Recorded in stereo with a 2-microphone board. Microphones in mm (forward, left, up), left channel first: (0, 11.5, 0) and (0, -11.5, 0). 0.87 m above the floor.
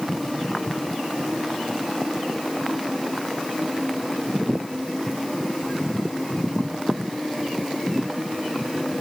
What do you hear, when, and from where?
Only background noise.